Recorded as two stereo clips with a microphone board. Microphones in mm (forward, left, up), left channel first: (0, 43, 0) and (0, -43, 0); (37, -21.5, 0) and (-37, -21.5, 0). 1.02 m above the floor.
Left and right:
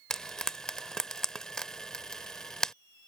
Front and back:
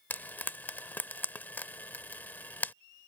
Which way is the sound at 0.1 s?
20° left.